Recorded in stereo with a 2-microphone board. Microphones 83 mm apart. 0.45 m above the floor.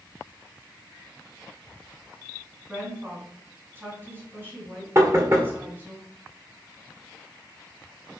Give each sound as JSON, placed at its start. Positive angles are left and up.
{"t": 2.7, "sound": "a woman speaking", "side_deg": -25, "distance_m": 3.0}
{"t": 5.0, "sound": "knocking", "side_deg": -35, "distance_m": 1.3}